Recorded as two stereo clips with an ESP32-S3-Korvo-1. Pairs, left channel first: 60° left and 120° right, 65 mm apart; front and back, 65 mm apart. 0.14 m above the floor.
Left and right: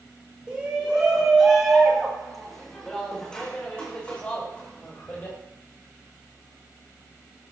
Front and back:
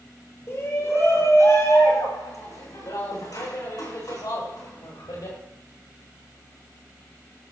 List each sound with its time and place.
0.5 s a shout: 50° right, 8 m; by 5.4 s straight ahead, 10 m